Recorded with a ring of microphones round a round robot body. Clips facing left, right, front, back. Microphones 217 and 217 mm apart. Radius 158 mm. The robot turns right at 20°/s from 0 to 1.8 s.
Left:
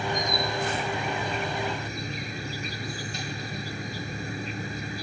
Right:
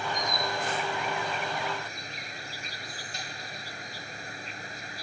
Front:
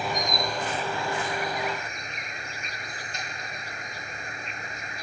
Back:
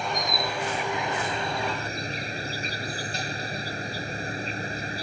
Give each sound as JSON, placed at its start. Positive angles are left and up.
{"t": 0.0, "sound": "an insect", "azimuth_deg": 85}